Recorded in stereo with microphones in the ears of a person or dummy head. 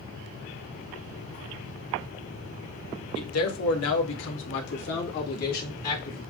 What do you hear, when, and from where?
3.1 s a man speaking: 75° left (ahead or behind), 1.1 m; by 6.2 s 45° left (ahead or behind), 2 m